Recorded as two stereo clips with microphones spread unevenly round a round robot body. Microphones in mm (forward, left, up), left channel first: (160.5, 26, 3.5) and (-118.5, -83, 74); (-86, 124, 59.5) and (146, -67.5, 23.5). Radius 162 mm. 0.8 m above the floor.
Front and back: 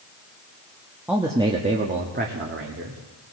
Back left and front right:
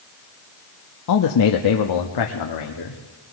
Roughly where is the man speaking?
Left.